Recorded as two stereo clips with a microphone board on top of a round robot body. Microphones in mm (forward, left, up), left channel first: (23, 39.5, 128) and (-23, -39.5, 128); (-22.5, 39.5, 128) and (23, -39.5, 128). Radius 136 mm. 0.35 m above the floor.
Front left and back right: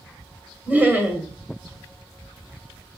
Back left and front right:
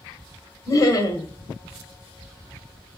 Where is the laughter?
170° left, 1.5 m.